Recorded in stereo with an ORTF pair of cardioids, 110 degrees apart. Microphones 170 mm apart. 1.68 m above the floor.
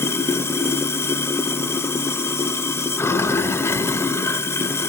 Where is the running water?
15° left, 0.8 m.